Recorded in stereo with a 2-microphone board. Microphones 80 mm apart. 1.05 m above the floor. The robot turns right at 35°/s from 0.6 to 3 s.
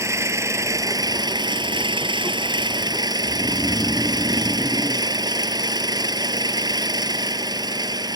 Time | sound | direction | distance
0.0 | an engine running | 140° right | ?
3.2 | snoring | 10° left (ahead or behind) | ?